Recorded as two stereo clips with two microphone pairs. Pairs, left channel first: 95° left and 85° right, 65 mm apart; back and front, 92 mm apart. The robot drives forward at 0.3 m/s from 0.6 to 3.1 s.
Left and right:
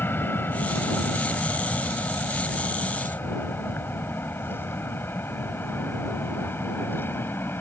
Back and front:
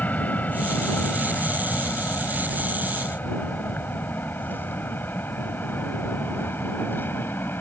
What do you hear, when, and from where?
0.0 s an aircraft: 120° left; by 7.6 s 125° left